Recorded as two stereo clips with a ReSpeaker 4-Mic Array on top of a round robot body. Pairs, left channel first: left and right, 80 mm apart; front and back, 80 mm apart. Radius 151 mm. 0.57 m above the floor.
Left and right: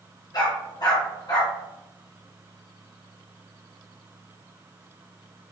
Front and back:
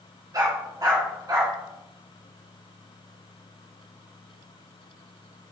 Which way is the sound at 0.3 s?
130° left.